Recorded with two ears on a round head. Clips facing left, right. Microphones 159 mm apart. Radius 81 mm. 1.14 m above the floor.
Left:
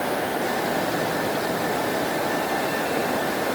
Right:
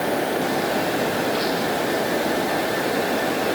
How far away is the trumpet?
No trumpet in this recording.